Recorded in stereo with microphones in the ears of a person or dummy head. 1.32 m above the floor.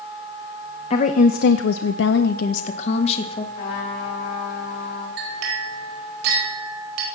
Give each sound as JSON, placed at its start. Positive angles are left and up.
{"t": 0.9, "sound": "a woman speaking", "side_deg": 40, "distance_m": 0.8}
{"t": 3.5, "sound": "a trumpet", "side_deg": 65, "distance_m": 3.0}
{"t": 5.2, "sound": "a clink", "side_deg": -70, "distance_m": 5.0}